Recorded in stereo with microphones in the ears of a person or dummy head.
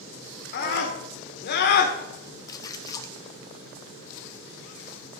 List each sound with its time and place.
0.5 s a scream: 55° left (ahead or behind), 1.1 m
2.5 s a splash: 15° left (ahead or behind), 0.7 m